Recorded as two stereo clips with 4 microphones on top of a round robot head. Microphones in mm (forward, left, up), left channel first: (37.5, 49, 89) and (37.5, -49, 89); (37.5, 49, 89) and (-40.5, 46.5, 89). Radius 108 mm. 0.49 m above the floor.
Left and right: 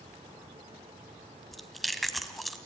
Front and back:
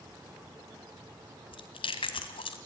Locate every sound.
1.5 s chewing: straight ahead, 1.3 m